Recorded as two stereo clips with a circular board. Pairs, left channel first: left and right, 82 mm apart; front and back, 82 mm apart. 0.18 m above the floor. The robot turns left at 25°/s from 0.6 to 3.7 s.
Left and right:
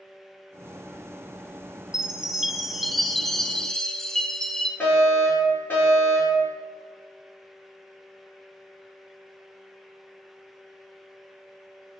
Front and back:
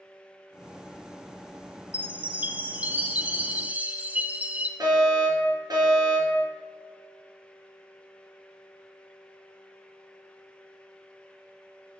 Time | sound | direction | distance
1.9 | a chime | 155° right | 0.8 m
4.8 | a fire alarm | 145° left | 4 m